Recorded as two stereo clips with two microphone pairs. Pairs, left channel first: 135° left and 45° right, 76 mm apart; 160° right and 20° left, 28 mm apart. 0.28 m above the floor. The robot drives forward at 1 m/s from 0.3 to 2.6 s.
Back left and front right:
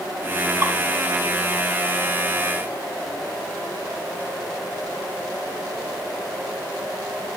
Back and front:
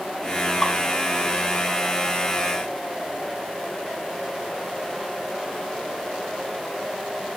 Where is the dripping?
60° right, 2 m; by 0.7 s 65° right, 2 m.